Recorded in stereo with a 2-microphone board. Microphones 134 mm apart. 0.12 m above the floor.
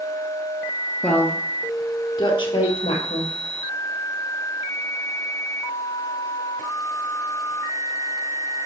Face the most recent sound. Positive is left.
turn(degrees=50)  # may be behind; listen again after turning